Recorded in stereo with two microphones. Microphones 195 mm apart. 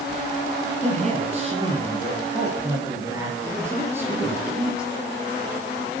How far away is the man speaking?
About 5 m.